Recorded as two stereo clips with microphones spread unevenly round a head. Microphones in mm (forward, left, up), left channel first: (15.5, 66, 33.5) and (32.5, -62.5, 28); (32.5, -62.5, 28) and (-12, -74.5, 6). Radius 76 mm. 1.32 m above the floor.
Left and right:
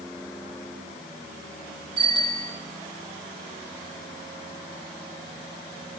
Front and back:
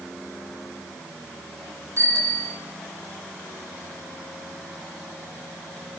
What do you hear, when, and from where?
2.0 s a bicycle bell: 145° right, 9.5 m